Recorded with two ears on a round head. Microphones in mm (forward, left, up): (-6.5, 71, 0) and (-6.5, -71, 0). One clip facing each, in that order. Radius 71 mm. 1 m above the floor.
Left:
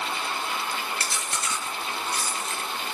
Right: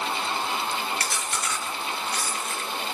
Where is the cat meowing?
I don't hear a cat meowing.